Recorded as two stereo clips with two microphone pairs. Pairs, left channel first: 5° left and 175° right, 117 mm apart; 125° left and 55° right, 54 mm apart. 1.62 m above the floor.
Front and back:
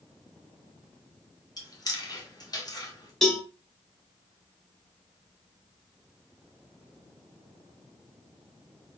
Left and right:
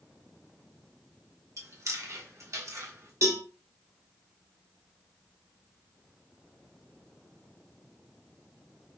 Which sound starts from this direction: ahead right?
Chewing, at 1.6 s.